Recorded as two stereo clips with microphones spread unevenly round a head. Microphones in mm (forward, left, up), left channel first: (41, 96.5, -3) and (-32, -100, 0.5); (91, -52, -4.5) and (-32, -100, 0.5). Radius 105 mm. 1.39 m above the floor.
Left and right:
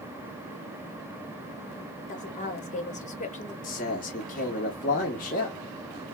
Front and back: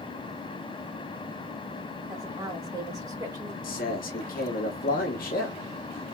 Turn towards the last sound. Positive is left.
turn(degrees=15)